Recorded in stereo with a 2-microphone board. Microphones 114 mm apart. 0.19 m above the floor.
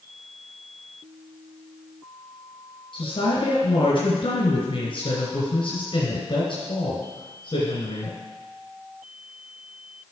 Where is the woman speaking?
50° left (ahead or behind), 2.5 m.